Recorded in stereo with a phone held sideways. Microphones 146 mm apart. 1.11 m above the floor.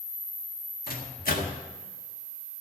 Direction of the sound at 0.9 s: 80° left.